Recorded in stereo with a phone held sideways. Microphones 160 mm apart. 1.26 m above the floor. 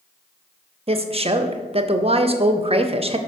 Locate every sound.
0.9 s a woman speaking: 35° right (ahead or behind), 0.6 m